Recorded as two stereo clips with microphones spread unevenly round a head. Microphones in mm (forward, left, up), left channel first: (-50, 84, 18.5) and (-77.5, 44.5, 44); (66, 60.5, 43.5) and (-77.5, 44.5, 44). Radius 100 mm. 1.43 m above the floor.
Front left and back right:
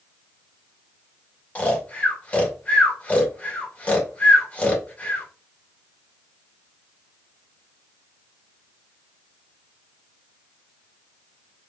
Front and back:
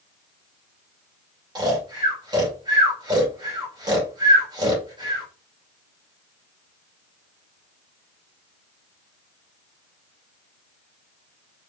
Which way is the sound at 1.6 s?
125° left.